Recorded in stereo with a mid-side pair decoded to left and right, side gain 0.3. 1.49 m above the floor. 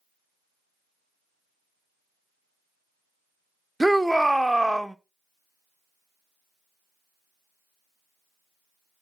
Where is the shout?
10° right, 0.6 m.